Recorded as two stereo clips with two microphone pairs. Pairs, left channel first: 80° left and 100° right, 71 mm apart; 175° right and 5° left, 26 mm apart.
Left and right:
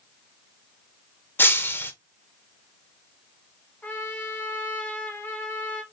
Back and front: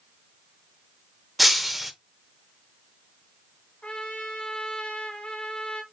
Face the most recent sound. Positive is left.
turn(degrees=150)